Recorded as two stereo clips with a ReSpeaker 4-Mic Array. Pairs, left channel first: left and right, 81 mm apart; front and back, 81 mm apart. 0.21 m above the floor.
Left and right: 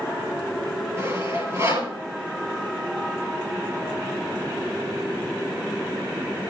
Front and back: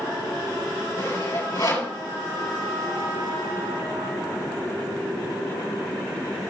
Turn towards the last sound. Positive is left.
turn(degrees=-35)